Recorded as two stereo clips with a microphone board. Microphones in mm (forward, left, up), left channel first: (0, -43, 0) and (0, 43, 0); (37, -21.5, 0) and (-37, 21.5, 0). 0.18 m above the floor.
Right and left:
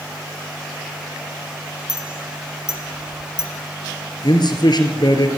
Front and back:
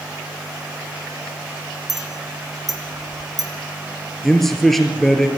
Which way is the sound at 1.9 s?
60° left.